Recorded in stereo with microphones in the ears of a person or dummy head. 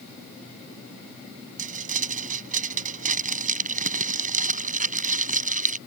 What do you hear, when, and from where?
1.6 s crumpling: 45° right (ahead or behind)